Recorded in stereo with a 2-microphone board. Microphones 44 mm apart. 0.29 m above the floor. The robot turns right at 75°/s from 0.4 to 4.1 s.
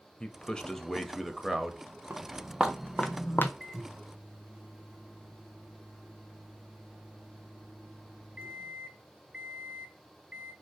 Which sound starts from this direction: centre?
A man speaking, at 0.2 s.